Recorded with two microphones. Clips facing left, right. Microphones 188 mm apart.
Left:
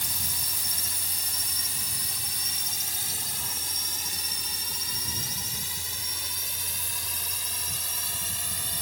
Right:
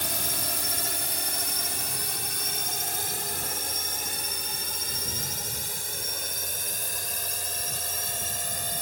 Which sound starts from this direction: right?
A drone, at 0.0 s.